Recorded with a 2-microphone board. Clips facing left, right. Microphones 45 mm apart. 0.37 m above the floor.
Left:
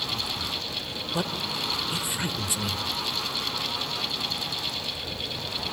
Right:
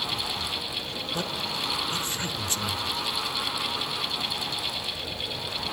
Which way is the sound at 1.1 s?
10° left (ahead or behind).